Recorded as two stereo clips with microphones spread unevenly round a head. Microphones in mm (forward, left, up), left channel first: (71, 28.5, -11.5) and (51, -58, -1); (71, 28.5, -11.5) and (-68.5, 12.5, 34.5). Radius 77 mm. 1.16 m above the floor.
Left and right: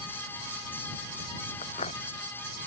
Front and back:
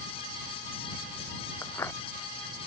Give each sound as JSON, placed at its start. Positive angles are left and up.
{"t": 1.6, "sound": "footsteps", "azimuth_deg": 80}